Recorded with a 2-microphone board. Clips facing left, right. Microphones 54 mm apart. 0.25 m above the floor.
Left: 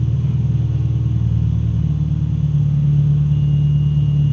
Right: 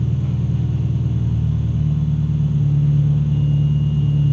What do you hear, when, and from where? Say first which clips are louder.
0.0 s an engine running: left 1 dB; 10° right (ahead or behind), 5 m